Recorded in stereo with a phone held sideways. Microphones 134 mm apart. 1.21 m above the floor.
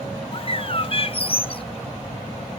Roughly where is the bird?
Left.